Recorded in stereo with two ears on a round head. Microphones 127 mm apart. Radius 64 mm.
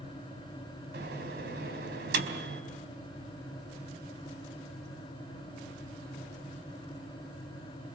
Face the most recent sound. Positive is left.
turn(degrees=-80)